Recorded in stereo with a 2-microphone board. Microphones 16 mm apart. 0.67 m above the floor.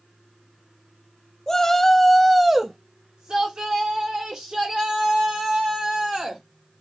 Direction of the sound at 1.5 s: 35° left (ahead or behind).